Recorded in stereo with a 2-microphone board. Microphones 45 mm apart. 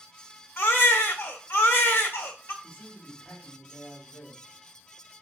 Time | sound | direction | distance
0.6 | a baby crying | 55° left (ahead or behind) | 1.2 m
2.6 | a man speaking | 10° left (ahead or behind) | 2.5 m